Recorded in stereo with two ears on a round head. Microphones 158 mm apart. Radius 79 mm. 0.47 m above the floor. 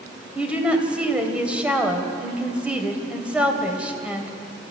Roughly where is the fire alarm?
No fire alarm in this recording.